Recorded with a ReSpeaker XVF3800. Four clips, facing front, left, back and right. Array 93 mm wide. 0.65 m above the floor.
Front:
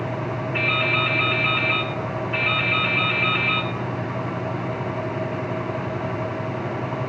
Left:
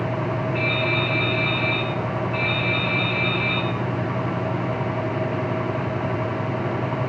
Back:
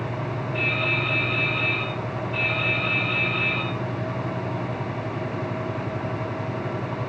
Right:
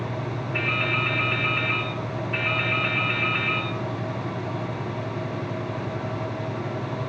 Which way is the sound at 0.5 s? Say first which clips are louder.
Even, front 4 dB; 35° right.